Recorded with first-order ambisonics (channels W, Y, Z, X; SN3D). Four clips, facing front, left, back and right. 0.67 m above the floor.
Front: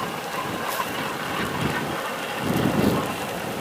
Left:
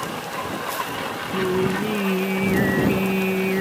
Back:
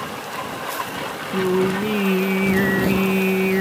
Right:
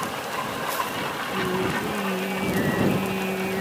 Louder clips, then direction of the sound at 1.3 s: Left 5 dB, back 9 dB; 160° left.